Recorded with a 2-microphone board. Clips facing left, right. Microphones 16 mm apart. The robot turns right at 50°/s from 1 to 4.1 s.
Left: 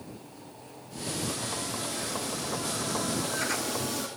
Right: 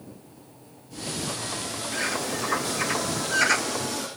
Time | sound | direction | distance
1.9 | a bird | 125° right | ?